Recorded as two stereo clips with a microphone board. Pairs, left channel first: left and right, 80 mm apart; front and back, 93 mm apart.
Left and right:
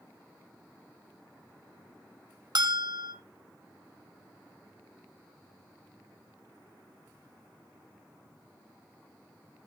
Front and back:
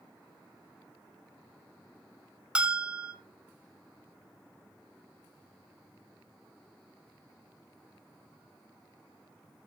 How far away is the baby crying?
No baby crying in this recording.